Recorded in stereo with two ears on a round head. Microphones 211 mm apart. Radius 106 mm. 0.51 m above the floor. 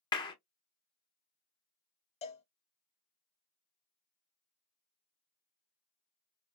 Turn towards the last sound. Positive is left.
turn(degrees=25)  # may be behind; listen again after turning